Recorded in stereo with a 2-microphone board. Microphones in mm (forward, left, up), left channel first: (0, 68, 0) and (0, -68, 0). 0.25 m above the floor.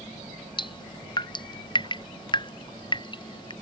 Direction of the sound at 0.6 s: 35° left (ahead or behind).